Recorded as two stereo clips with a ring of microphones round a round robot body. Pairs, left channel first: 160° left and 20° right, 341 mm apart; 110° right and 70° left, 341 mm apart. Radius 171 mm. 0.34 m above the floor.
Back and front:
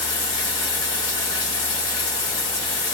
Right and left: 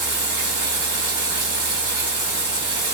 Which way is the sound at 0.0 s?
80° left.